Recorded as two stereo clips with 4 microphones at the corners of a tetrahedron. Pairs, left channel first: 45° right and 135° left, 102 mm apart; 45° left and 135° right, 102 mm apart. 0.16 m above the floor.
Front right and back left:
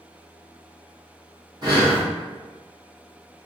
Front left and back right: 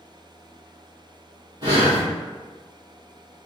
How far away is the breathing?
About 1.9 m.